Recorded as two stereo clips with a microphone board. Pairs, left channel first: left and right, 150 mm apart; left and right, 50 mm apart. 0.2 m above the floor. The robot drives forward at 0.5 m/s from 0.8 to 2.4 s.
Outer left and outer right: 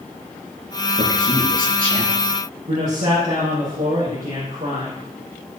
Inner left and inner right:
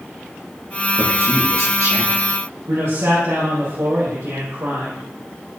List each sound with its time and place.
1.0 s a man speaking: 65° right (ahead or behind), 4.5 m; by 2.2 s 70° right (ahead or behind), 4.5 m
2.7 s a man speaking: 75° right (ahead or behind), 6 m